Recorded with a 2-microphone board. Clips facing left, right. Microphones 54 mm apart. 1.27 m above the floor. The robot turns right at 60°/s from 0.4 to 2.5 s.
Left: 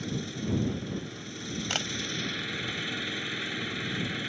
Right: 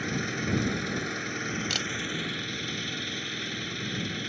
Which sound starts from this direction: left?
A camera shutter, at 1.7 s.